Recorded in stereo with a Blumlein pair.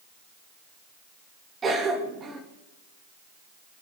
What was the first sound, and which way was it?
A cough, 15° right.